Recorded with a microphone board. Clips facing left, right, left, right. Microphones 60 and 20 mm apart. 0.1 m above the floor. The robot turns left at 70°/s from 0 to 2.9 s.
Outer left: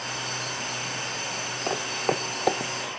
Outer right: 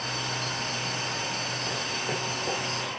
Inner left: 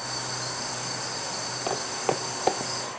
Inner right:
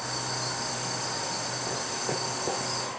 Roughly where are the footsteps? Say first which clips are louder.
Outer left 8 dB, inner left 7 dB; left.